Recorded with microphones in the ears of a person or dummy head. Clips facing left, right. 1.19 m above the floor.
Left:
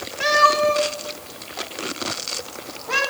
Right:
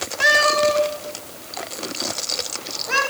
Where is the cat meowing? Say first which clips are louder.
Even; 5° right (ahead or behind), 1.9 m; by 3.0 s 25° right (ahead or behind), 3.5 m.